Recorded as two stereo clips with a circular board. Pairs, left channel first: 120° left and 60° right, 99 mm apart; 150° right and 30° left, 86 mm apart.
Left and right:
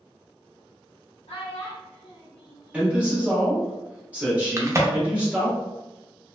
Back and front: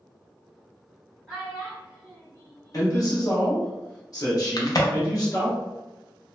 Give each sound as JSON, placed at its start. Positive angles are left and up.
{"t": 1.3, "sound": "a child speaking", "azimuth_deg": 115, "distance_m": 1.5}
{"t": 2.7, "sound": "a man speaking", "azimuth_deg": -130, "distance_m": 1.2}
{"t": 4.6, "sound": "a crack", "azimuth_deg": -115, "distance_m": 0.5}